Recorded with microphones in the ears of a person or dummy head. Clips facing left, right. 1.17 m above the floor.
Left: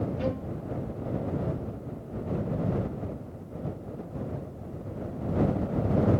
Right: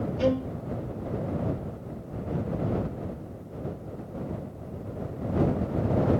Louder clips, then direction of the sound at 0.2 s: Right 6 dB; 55° right (ahead or behind).